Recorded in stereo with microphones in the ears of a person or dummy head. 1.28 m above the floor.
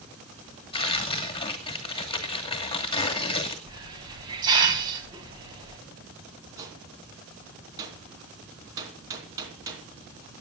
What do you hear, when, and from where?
0.7 s tearing paper: 25° left (ahead or behind), 2 m
3.7 s a hiss: 25° right (ahead or behind), 4 m
6.6 s a gunshot: 25° right (ahead or behind), 3 m